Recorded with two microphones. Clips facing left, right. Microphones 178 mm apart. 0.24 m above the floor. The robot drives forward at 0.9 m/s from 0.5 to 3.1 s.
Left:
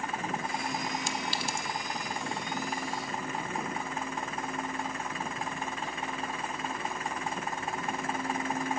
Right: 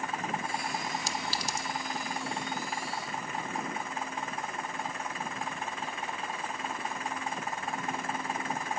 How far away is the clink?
About 0.7 m.